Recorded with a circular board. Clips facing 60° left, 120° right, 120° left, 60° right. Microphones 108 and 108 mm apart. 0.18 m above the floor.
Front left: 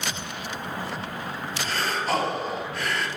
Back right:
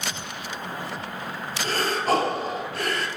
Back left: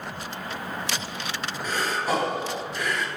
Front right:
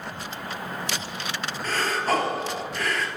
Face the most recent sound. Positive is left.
turn(degrees=-165)